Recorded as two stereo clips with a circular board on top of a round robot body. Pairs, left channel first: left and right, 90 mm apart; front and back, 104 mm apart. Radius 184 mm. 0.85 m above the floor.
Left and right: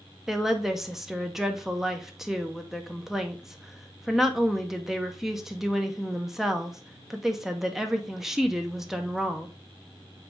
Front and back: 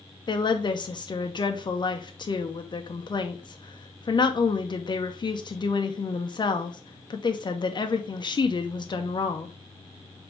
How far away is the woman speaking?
About 0.7 m.